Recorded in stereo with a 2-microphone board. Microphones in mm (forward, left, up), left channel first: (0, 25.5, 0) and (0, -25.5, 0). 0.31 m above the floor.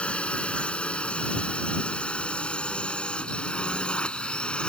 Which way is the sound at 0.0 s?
25° left (ahead or behind).